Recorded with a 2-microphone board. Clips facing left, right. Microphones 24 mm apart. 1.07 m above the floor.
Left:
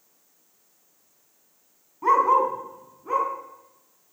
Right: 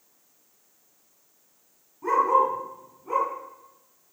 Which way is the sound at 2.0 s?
50° left (ahead or behind).